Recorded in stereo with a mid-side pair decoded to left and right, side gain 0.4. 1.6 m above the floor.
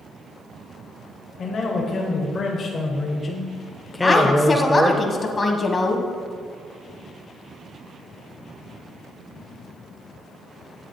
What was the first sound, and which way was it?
A man speaking, 65° left.